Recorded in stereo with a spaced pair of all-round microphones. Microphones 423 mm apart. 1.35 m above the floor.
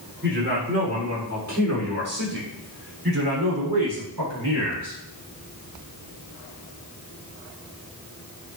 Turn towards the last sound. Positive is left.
turn(degrees=-70)  # may be behind; listen again after turning